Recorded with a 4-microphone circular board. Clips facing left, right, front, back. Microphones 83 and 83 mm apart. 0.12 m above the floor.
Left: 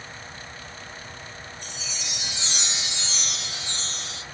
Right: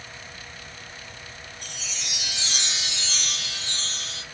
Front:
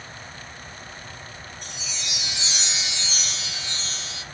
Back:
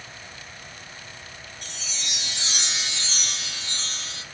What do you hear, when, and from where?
1.6 s a chime: 160° left, 3.5 m